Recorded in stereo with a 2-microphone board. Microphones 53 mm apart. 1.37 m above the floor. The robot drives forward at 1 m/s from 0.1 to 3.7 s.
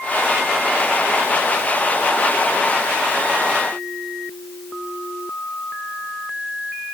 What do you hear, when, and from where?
Only background noise.